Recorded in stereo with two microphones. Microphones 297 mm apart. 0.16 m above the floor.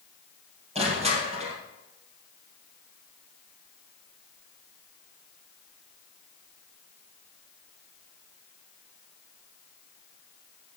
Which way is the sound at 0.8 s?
20° right (ahead or behind).